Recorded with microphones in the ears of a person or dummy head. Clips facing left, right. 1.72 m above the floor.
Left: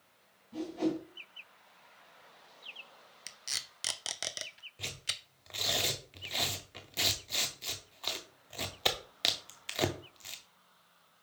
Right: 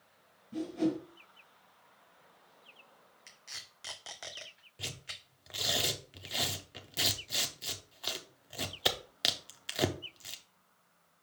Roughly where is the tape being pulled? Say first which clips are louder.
Left 4 dB; left.